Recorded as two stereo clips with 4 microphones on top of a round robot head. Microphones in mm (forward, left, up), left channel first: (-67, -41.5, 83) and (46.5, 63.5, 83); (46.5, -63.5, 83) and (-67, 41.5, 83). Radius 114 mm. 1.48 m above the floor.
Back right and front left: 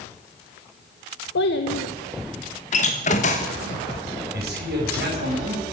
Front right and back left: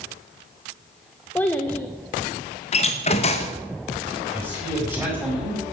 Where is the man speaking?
55° left, 5 m.